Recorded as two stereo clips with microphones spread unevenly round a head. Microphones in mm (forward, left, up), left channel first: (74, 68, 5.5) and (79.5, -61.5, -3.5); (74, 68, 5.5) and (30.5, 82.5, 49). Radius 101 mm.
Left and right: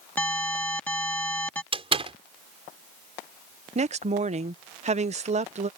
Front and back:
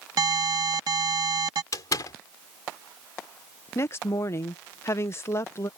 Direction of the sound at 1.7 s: 40° right.